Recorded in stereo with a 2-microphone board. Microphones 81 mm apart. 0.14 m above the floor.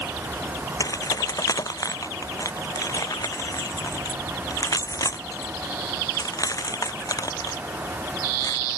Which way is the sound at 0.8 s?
45° left (ahead or behind).